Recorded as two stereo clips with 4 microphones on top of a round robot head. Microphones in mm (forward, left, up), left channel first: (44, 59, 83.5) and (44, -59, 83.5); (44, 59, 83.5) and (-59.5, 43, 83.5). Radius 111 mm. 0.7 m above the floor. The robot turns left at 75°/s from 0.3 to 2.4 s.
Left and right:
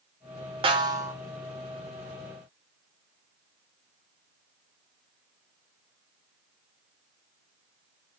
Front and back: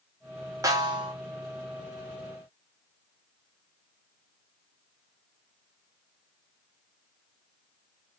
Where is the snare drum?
120° right, 0.9 m; by 1.1 s 155° right, 0.9 m.